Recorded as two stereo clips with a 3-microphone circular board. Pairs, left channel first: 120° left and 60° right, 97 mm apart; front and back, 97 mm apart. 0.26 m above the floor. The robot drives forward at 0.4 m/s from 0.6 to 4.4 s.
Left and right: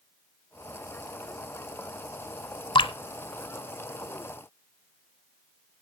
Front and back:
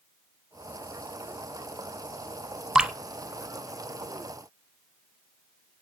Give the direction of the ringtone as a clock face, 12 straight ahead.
No ringtone in this recording.